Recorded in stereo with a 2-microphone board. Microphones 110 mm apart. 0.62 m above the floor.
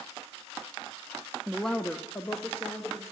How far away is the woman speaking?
About 0.5 m.